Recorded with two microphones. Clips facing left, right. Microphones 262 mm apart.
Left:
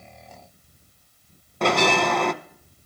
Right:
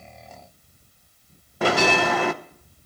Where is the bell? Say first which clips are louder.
Even; 5° right (ahead or behind), 0.5 m.